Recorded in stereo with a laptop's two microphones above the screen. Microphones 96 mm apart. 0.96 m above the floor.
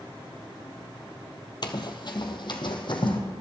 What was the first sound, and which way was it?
Running footsteps, 50° left (ahead or behind).